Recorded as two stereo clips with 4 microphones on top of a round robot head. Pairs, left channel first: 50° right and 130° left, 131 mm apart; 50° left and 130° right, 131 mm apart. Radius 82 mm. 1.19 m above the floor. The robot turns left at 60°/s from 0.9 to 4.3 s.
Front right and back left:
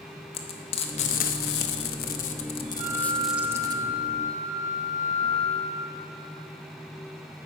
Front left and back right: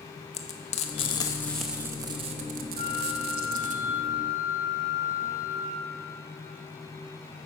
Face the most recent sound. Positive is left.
turn(degrees=5)